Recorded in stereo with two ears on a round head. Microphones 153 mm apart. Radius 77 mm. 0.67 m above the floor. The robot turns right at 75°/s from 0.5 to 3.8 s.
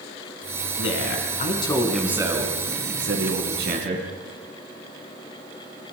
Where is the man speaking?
90° left, 5.5 m; by 4.1 s 45° right, 5.5 m.